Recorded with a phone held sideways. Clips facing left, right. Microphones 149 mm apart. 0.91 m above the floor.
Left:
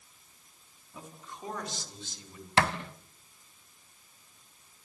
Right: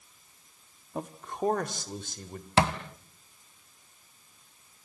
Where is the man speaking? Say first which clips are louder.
Right 12 dB; 65° right (ahead or behind), 1.7 m; by 2.5 s 55° right (ahead or behind), 4 m.